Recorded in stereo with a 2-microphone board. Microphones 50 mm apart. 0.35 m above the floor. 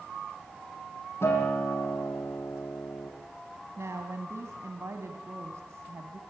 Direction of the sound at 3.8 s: 70° right (ahead or behind).